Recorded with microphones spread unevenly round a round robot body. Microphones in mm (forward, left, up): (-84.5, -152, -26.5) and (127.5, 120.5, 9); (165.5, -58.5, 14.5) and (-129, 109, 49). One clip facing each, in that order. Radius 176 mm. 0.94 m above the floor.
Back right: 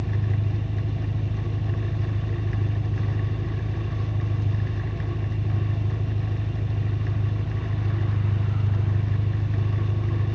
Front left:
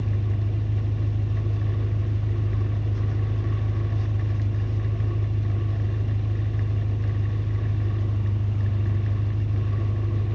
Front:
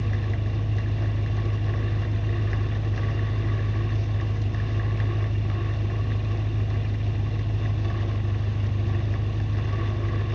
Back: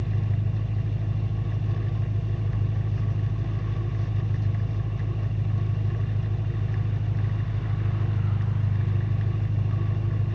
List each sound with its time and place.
0.0 s an engine running: straight ahead, 1.3 m